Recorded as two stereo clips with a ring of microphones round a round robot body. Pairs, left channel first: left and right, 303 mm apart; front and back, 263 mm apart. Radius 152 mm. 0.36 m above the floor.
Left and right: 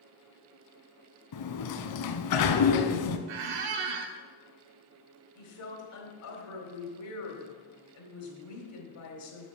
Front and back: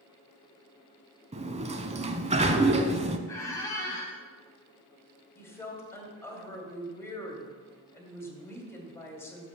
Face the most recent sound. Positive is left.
turn(degrees=80)